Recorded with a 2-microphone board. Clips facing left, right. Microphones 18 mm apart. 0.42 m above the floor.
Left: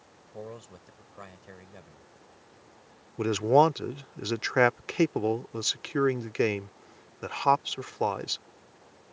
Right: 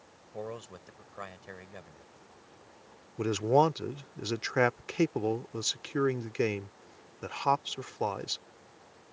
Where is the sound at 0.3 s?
25° right (ahead or behind).